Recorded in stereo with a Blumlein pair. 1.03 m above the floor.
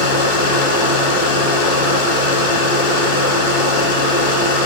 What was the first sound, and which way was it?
A machine running, 55° left.